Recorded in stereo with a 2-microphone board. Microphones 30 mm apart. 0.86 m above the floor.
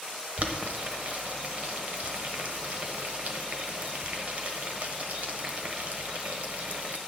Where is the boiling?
50° right (ahead or behind), 0.9 m.